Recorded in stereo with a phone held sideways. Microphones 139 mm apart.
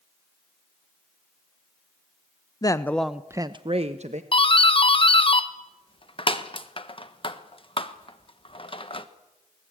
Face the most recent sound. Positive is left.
turn(degrees=40)  # may be behind; listen again after turning